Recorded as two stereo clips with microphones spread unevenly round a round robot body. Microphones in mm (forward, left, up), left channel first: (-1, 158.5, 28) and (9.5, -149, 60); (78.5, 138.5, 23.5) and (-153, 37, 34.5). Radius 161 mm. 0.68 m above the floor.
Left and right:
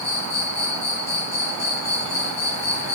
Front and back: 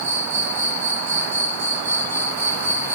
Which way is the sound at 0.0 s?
85° left.